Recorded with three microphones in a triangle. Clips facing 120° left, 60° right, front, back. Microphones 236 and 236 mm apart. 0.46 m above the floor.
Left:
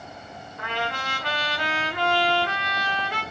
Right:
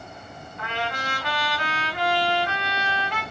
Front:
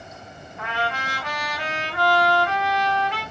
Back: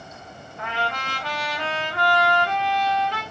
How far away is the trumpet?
About 1.3 m.